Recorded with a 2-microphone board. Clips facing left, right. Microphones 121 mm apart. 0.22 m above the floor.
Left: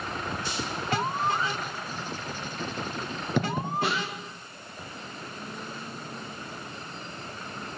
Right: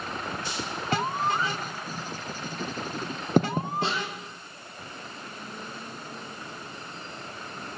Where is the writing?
45° right (ahead or behind), 3 m.